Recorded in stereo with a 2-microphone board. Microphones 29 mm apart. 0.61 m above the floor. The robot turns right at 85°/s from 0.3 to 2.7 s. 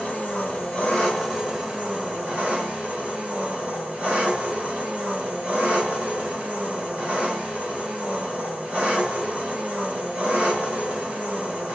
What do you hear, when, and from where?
0.0 s an engine running: 85° left, 2.0 m; by 11.8 s 75° right, 2.0 m